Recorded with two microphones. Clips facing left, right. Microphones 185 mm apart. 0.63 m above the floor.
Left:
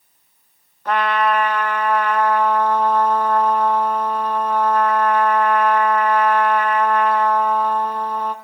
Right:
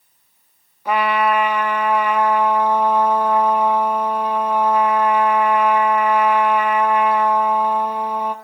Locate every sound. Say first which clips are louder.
0.8 s a trumpet: right 1 dB; 10° right (ahead or behind), 0.5 m